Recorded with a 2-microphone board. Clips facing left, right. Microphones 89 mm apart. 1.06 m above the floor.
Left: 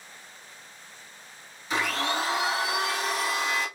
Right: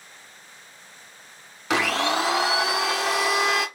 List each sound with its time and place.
1.7 s a blender: 80° right, 0.5 m